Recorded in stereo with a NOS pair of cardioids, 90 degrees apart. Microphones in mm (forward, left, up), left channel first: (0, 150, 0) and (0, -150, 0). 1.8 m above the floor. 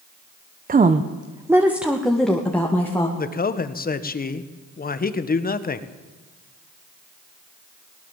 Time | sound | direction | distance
0.7 | a woman speaking | 30° right | 1.2 m
3.2 | a man speaking | 30° left | 1.7 m